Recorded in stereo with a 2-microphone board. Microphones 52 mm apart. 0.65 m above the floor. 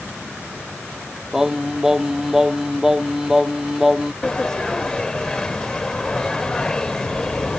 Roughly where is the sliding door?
Centre.